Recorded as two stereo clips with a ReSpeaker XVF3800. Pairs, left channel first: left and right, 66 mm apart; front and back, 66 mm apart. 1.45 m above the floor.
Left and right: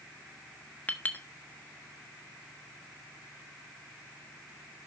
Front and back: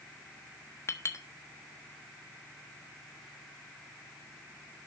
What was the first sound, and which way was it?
A clink, 30° left.